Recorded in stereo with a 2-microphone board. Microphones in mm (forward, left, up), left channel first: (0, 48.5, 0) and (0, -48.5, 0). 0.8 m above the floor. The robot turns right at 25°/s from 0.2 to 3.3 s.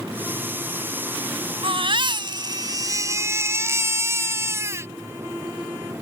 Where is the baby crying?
70° right; by 4.9 s 30° right.